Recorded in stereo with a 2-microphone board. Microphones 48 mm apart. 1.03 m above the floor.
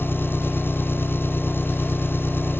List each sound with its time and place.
0.0 s an engine running: 50° left (ahead or behind)